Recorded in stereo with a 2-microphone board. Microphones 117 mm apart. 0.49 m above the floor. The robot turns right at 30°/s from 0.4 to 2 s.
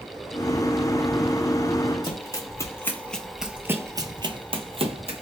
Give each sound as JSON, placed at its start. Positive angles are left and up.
{"t": 2.0, "sound": "running footsteps", "side_deg": 40, "distance_m": 1.1}